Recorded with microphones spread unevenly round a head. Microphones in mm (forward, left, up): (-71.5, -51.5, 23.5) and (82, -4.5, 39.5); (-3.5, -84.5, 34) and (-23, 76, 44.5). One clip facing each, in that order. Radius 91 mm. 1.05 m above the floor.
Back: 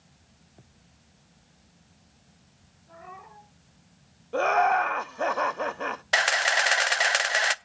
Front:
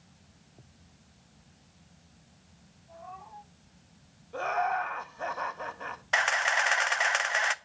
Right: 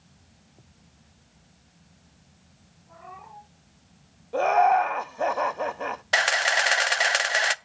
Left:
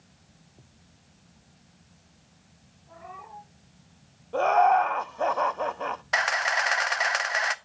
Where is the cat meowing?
175° right, 7.5 m.